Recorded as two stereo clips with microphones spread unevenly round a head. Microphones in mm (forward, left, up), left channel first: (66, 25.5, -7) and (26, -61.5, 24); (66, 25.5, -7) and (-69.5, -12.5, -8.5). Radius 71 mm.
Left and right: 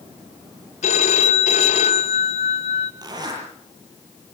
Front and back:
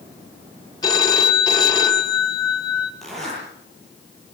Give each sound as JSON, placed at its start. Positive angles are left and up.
{"t": 0.8, "sound": "a phone ringing", "azimuth_deg": 75, "distance_m": 2.5}
{"t": 3.0, "sound": "a zipper", "azimuth_deg": -75, "distance_m": 8.5}